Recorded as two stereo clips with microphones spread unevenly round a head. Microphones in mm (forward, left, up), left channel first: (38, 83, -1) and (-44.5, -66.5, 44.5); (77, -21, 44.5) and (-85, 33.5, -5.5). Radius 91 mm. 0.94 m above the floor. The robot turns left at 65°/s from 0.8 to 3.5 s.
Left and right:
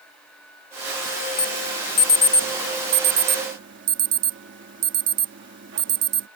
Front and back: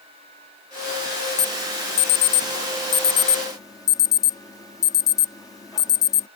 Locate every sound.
1.4 s an alarm: 45° left; by 6.3 s 95° right